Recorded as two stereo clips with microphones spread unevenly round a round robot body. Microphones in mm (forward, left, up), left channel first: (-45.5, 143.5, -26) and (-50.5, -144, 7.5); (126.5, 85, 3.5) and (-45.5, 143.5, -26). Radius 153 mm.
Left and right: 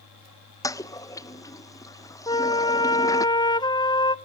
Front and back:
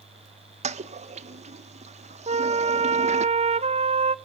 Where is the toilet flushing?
155° left, 0.7 m.